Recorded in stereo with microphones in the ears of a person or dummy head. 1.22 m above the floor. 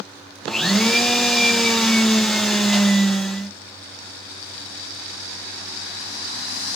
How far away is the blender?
About 0.6 m.